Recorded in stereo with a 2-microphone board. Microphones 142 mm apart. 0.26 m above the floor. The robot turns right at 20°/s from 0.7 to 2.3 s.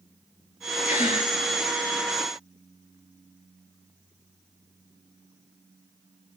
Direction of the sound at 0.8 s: 70° left (ahead or behind).